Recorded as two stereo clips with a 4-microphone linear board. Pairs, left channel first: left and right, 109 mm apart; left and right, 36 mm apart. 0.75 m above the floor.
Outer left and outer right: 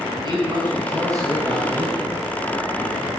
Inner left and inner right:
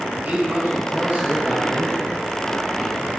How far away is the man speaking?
About 4.5 m.